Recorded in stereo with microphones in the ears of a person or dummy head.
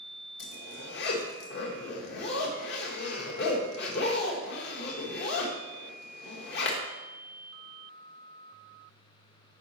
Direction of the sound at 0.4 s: 60° left (ahead or behind).